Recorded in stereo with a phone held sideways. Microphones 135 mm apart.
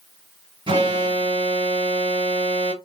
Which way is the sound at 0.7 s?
40° right (ahead or behind).